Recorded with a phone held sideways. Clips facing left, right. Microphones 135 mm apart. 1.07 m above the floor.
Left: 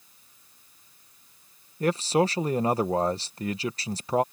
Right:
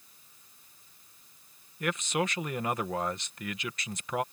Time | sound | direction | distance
1.8 | a man speaking | 35° left (ahead or behind) | ?